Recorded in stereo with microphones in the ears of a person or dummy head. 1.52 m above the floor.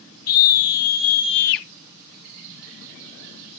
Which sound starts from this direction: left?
A scream, at 0.3 s.